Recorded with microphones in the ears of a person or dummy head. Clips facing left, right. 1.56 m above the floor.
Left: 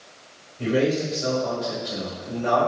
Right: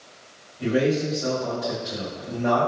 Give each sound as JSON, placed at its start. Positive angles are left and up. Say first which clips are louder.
{"t": 0.6, "sound": "a man speaking", "louder": "even", "side_deg": 45, "distance_m": 1.9}